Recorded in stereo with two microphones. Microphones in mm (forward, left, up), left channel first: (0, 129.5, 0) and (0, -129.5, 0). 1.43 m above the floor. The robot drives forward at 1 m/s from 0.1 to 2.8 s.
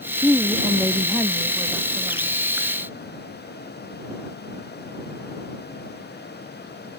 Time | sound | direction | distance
0.2 | a woman speaking | 5° left (ahead or behind) | ?